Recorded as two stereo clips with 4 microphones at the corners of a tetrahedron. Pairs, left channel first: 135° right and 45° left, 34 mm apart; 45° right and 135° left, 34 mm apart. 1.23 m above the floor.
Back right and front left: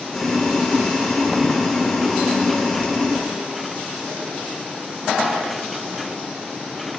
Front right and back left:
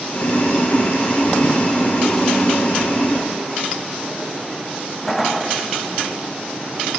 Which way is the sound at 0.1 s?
50° right.